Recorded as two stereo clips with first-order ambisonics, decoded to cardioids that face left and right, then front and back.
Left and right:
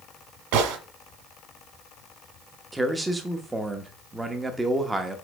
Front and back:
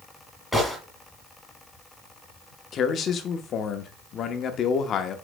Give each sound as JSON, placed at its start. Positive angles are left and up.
{"t": 0.5, "sound": "a gunshot", "azimuth_deg": -90, "distance_m": 1.6}
{"t": 2.7, "sound": "a man speaking", "azimuth_deg": -15, "distance_m": 0.7}